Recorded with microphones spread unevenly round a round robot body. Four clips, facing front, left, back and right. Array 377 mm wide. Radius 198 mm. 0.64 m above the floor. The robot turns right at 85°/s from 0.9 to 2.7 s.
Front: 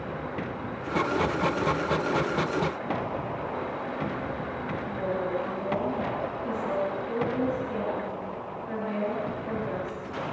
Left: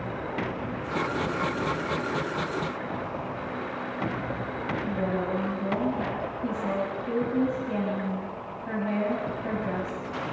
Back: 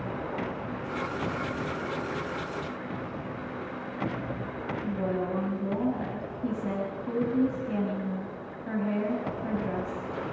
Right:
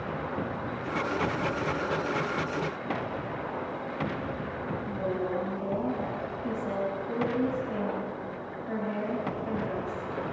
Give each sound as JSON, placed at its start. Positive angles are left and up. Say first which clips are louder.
{"t": 4.8, "sound": "a woman speaking", "louder": "left 2 dB, even", "azimuth_deg": 145, "distance_m": 5.5}